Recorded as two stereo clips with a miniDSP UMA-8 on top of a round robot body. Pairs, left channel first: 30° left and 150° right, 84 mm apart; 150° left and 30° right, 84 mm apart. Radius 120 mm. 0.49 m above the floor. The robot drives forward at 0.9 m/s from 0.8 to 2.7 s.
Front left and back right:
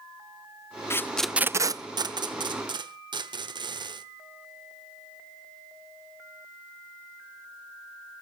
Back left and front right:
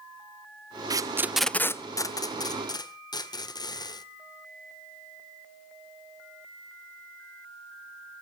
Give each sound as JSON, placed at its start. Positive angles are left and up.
{"t": 0.9, "sound": "tape being pulled", "azimuth_deg": -15, "distance_m": 0.6}